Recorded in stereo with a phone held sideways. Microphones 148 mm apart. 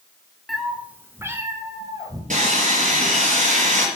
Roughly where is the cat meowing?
Centre.